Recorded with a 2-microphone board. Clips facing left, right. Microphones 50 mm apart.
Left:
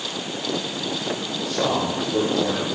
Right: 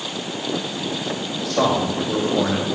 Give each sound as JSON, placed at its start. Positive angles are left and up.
{"t": 1.4, "sound": "a man speaking", "side_deg": -80, "distance_m": 2.5}